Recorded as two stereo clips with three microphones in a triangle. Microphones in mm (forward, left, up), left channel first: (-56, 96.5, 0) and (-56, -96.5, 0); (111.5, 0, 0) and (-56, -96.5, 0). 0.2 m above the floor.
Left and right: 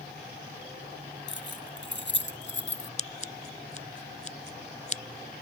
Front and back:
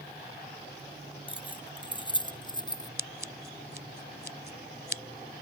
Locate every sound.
1.3 s keys jangling: 90° left; by 2.9 s 95° left
3.0 s scissors: 45° left